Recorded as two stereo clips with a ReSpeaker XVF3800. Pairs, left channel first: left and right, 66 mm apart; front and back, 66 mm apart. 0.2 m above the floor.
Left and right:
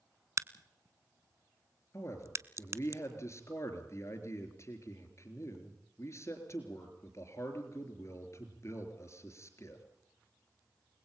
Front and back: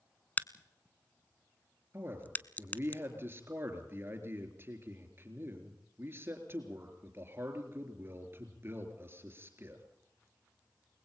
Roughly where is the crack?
Ahead right.